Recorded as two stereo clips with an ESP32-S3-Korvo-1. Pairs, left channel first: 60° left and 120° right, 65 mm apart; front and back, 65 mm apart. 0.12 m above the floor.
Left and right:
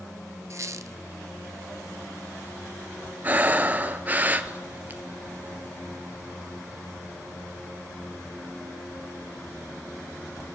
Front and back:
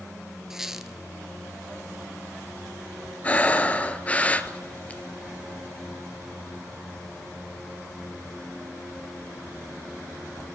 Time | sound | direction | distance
0.5 | a squeak | 100° right | 0.6 m
3.2 | breathing | 65° right | 0.7 m